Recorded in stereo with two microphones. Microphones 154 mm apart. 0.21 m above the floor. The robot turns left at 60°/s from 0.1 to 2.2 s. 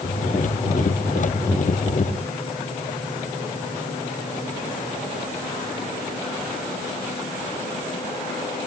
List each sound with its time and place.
Only background noise.